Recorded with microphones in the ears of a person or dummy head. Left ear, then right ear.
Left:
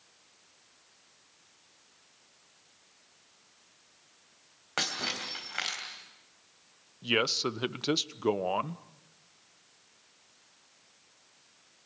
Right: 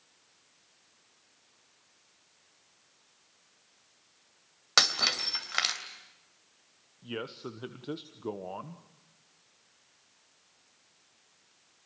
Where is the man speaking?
75° left (ahead or behind), 0.9 m.